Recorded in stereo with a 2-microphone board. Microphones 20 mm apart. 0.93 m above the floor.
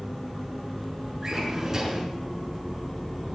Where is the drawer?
25° right (ahead or behind), 5.5 m.